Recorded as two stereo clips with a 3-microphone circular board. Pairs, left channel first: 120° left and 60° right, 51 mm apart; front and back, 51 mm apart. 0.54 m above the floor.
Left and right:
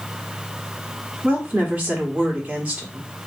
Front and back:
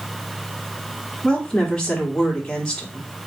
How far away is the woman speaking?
About 1.1 m.